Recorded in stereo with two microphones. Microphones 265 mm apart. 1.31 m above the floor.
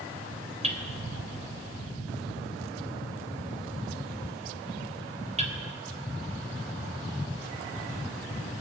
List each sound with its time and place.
0.6 s hammering: 25° right (ahead or behind), 3 m